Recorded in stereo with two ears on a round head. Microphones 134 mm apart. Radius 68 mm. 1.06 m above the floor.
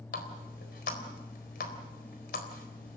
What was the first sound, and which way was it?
A running tap, 60° left (ahead or behind).